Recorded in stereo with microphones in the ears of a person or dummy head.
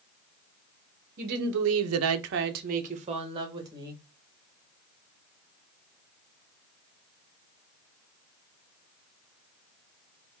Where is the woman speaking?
50° right (ahead or behind), 0.9 m; by 4.0 s 20° right (ahead or behind), 1.6 m.